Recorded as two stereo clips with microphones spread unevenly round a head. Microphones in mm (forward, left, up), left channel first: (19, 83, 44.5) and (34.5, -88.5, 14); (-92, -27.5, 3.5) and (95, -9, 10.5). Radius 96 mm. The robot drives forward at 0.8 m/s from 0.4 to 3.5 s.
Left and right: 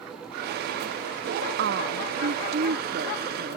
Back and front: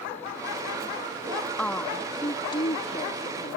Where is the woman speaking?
90° right; by 3.6 s 130° right.